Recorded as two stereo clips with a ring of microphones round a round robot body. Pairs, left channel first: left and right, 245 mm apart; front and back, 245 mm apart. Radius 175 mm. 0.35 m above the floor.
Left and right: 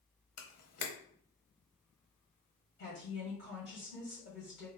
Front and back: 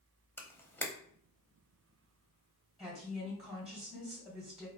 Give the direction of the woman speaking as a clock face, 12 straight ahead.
9 o'clock.